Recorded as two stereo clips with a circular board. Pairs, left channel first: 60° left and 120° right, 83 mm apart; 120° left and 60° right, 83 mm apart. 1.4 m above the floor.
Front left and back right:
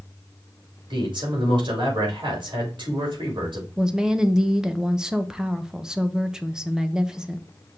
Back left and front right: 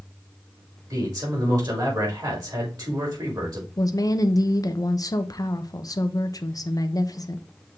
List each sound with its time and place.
0.9 s a man speaking: 100° right, 4 m
3.8 s a woman speaking: 160° left, 0.8 m